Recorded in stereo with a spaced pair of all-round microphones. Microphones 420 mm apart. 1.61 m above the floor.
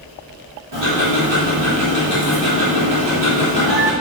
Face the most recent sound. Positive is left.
turn(degrees=-75)  # may be behind; listen again after turning